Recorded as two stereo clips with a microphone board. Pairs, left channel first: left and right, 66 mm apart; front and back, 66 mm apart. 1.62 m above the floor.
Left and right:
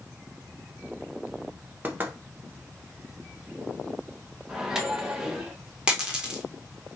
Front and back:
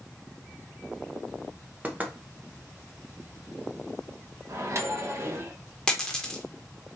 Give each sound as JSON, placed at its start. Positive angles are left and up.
{"t": 1.8, "sound": "knocking", "azimuth_deg": -130, "distance_m": 0.9}
{"t": 4.5, "sound": "a microwave", "azimuth_deg": -165, "distance_m": 0.9}
{"t": 5.9, "sound": "a dropped coin", "azimuth_deg": -50, "distance_m": 1.3}